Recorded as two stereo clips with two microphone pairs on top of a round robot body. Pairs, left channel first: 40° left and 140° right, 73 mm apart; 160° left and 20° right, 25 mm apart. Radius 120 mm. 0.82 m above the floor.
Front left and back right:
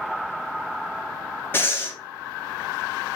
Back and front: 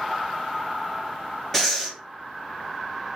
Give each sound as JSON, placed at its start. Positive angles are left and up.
{"t": 1.5, "sound": "breathing", "azimuth_deg": 65, "distance_m": 1.2}